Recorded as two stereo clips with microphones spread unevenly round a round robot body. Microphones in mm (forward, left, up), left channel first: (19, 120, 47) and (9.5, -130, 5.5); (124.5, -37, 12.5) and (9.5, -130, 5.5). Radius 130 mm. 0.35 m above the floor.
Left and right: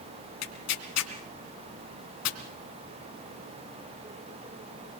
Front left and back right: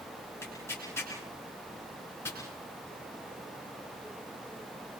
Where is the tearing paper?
120° left, 3 m.